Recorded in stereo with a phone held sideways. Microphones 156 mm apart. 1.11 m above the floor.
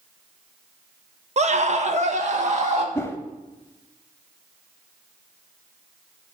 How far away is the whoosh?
About 0.9 m.